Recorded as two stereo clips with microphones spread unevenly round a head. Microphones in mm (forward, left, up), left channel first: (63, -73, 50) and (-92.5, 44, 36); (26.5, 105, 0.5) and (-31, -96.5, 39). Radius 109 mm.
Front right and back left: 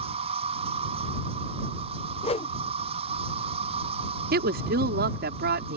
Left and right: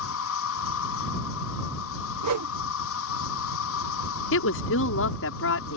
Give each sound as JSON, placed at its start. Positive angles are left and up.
{"t": 0.0, "sound": "an insect", "azimuth_deg": 85}
{"t": 2.2, "sound": "a whoosh", "azimuth_deg": -100}
{"t": 4.3, "sound": "a woman speaking", "azimuth_deg": 100}